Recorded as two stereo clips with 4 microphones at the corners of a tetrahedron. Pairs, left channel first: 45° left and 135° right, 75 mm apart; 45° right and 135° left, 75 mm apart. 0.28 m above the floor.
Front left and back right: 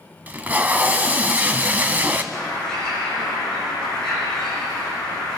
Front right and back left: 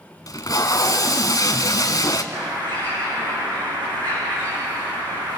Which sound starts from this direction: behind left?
A bird, at 2.3 s.